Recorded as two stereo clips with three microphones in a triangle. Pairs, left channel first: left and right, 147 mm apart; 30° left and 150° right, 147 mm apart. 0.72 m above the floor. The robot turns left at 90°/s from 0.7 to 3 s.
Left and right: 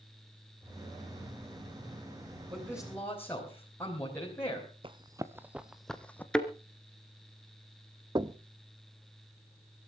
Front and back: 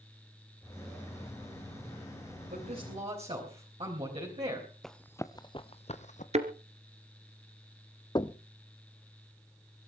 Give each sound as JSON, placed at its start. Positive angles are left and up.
{"t": 2.5, "sound": "a man speaking", "azimuth_deg": -150, "distance_m": 4.5}
{"t": 4.8, "sound": "running footsteps", "azimuth_deg": -60, "distance_m": 0.9}
{"t": 6.3, "sound": "a thud", "azimuth_deg": 175, "distance_m": 1.6}
{"t": 8.2, "sound": "knocking", "azimuth_deg": -30, "distance_m": 0.6}